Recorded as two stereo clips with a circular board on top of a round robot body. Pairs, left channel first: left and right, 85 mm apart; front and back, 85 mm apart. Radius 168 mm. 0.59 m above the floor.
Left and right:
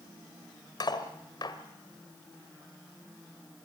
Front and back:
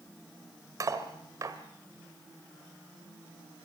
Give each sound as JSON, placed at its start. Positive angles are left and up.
{"t": 0.8, "sound": "cutlery clinking", "azimuth_deg": 130, "distance_m": 1.8}